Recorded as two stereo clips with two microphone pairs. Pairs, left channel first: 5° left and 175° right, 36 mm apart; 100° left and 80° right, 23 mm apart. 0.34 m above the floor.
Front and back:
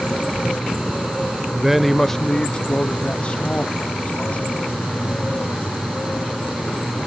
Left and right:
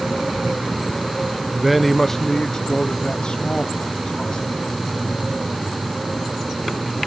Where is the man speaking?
125° right, 0.9 m; by 4.8 s 55° left, 3.5 m.